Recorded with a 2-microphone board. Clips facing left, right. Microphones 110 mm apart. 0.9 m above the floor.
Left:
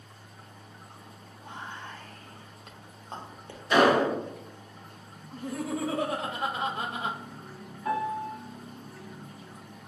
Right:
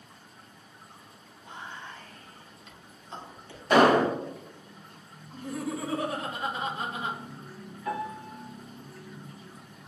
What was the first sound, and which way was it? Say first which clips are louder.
Whispering: left 1 dB; 50° left (ahead or behind).